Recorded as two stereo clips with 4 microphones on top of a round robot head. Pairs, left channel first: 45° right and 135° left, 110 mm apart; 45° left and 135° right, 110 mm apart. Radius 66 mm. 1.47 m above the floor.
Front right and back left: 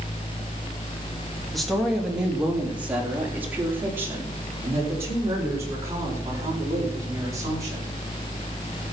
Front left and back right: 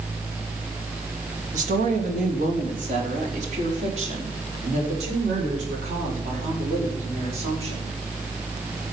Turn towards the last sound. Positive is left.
turn(degrees=-165)